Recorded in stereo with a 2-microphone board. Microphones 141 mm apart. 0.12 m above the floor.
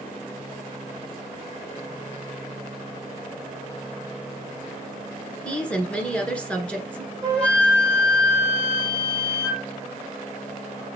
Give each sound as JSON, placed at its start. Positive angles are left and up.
{"t": 5.4, "sound": "a woman speaking", "side_deg": 10, "distance_m": 1.4}
{"t": 7.2, "sound": "a flute", "side_deg": 10, "distance_m": 2.5}